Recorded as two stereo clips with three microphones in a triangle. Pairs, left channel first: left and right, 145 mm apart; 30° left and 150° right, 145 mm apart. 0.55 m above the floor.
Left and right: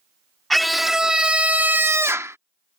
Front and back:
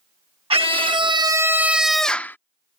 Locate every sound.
0.5 s a scream: straight behind; by 2.4 s 35° right